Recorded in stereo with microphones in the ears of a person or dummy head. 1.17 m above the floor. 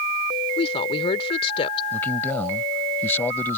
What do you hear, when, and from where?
0.6 s a woman speaking: 35° left (ahead or behind)
1.9 s a man speaking: 15° left (ahead or behind)